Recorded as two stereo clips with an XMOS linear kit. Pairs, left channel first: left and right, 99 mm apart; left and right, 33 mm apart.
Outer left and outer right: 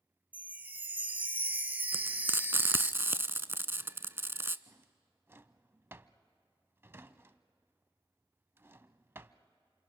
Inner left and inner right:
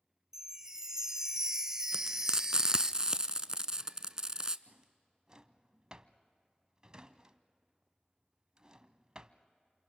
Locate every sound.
0.3 s a chime: 15° right (ahead or behind), 0.5 m
1.9 s frying: 25° right (ahead or behind), 0.5 m
4.7 s a drawer: 25° right (ahead or behind), 0.6 m